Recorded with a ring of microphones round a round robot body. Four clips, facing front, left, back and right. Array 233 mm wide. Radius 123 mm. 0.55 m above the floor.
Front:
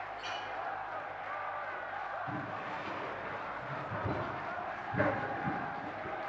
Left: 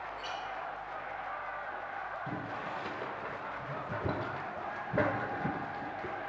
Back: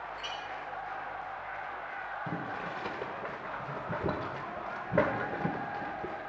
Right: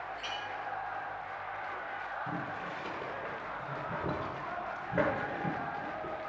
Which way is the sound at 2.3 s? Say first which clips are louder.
Even, back 2 dB; 170° left.